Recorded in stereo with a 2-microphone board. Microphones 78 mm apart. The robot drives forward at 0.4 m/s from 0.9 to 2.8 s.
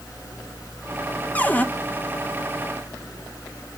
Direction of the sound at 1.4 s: 20° left (ahead or behind).